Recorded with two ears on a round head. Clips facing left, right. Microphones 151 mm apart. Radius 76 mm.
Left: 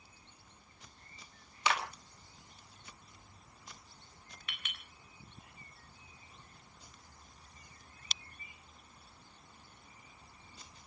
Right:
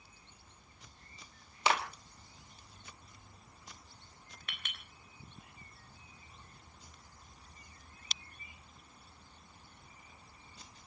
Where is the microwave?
No microwave in this recording.